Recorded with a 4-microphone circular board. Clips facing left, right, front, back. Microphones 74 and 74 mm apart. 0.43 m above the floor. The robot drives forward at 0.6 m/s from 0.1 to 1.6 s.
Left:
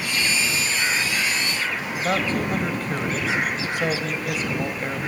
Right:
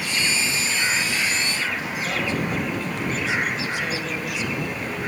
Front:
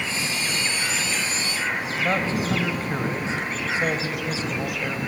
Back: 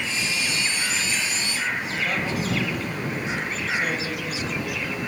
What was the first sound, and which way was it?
A man speaking, 55° left.